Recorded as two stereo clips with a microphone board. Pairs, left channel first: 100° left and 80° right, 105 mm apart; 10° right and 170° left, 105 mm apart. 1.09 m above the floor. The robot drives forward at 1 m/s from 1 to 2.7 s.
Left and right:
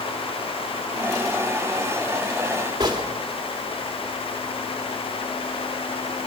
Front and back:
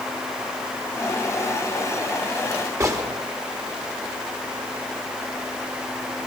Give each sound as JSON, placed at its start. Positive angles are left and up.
{"t": 2.8, "sound": "a gunshot", "azimuth_deg": -130, "distance_m": 3.0}